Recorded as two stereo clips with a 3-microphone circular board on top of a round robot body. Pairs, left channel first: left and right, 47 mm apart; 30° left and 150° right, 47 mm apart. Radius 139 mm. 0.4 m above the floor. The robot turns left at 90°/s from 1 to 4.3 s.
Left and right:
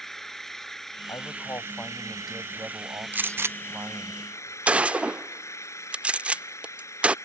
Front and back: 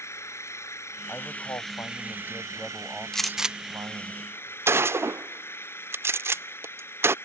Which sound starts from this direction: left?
A man speaking, at 1.1 s.